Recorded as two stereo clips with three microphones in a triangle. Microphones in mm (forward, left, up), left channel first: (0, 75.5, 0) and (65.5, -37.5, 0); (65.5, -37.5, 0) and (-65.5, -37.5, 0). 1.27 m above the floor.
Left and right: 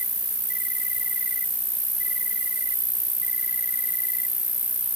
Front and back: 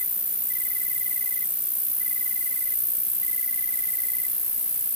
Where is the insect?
135° right.